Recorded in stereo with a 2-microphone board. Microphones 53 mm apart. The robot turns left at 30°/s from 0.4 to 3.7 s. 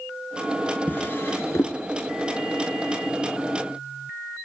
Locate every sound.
0.9 s a drawer: 35° left (ahead or behind), 1.2 m; by 1.8 s 60° left (ahead or behind), 1.2 m